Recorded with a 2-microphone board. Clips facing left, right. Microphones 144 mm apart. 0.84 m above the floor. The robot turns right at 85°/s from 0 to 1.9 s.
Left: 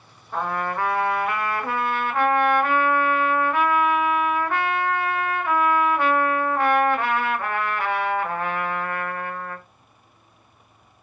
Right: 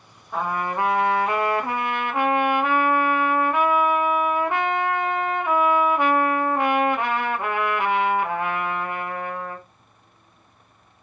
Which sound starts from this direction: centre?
A trumpet, at 0.3 s.